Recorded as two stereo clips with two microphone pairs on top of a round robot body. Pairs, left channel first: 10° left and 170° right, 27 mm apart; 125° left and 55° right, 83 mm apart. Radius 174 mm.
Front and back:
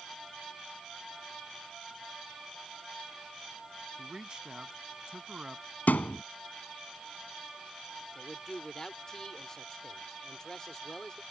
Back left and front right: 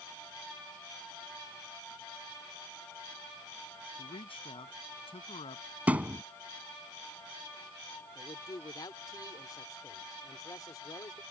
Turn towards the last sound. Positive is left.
turn(degrees=75)